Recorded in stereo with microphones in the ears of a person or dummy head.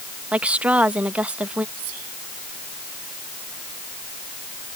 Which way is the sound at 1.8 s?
85° right.